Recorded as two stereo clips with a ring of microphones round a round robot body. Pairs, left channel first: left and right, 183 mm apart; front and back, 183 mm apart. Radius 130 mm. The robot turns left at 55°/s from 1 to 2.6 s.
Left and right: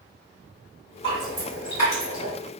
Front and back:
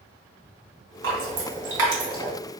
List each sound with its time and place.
1.0 s dripping: 160° right, 1.4 m; by 2.3 s 130° left, 1.4 m